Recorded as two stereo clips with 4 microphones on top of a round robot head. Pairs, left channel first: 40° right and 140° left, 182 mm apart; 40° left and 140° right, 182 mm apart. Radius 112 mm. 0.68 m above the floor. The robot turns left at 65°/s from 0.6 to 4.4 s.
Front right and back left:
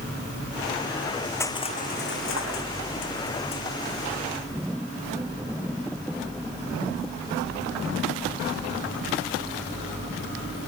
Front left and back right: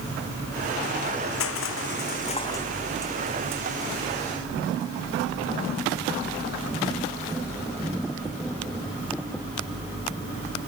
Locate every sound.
1.4 s crushing: 40° left; by 3.6 s 105° right